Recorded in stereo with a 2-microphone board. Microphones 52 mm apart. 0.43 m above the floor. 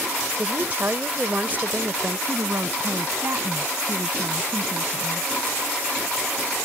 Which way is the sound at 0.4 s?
40° right (ahead or behind).